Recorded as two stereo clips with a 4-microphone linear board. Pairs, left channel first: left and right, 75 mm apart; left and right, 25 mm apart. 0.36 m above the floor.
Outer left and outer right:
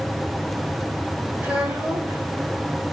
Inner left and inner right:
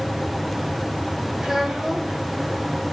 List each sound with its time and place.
1.4 s a child speaking: 15° right (ahead or behind), 8.5 m